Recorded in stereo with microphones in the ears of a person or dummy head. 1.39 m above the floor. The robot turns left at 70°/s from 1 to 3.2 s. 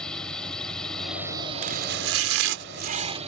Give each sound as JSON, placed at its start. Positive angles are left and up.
{"t": 0.0, "sound": "a drone", "side_deg": 5}
{"t": 1.6, "sound": "chopping", "azimuth_deg": -50}